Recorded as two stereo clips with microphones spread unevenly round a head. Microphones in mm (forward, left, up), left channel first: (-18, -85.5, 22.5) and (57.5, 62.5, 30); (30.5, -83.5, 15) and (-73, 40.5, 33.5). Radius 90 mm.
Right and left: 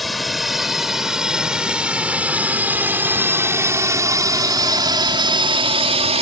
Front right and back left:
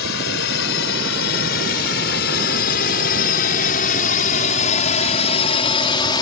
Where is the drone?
30° right; by 6.2 s 15° left.